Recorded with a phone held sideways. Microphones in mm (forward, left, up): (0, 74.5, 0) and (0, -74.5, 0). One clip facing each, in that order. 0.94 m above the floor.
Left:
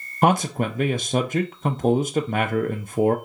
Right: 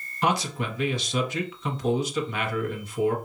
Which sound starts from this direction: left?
A man speaking, at 0.2 s.